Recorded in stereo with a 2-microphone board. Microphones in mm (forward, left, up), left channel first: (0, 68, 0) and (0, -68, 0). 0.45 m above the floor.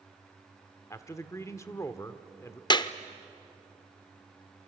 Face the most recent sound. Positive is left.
turn(degrees=30)  # may be behind; listen again after turning